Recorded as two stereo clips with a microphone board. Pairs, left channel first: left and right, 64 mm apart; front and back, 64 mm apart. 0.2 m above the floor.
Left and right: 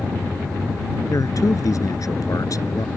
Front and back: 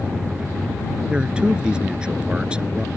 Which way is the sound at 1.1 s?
105° left.